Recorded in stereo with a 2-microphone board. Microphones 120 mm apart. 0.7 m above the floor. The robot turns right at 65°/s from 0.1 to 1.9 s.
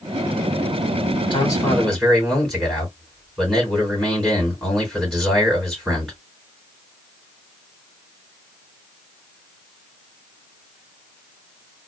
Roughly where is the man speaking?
Behind left.